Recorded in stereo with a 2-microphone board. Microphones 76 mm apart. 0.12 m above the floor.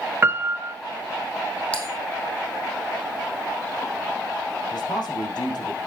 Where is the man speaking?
65° left (ahead or behind), 6.5 m.